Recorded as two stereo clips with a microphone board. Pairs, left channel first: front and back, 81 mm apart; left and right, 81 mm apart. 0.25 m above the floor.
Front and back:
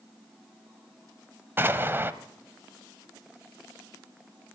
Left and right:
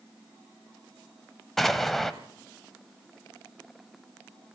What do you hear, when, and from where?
1.6 s an explosion: 175° left, 1.3 m